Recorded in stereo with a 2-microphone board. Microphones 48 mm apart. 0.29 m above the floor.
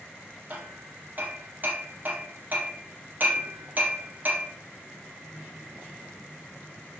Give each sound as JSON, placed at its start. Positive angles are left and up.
{"t": 0.5, "sound": "hammering", "side_deg": -40, "distance_m": 3.5}